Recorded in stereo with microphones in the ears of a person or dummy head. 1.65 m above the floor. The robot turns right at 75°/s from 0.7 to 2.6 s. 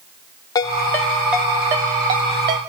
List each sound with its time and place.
0.6 s a ringtone: 10° left (ahead or behind), 0.8 m; by 2.6 s 20° right (ahead or behind), 0.8 m